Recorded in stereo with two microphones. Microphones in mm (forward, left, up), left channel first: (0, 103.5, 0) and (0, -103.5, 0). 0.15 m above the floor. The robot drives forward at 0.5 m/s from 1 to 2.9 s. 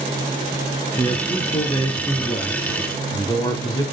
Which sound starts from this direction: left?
A man speaking, at 1.0 s.